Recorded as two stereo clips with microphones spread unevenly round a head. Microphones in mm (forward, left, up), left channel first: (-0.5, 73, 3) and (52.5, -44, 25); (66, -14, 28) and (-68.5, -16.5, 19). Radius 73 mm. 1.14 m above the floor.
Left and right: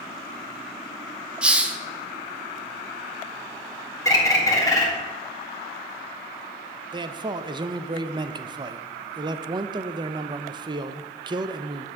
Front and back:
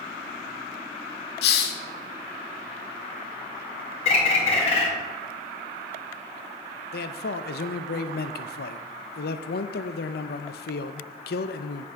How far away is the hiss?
About 0.9 m.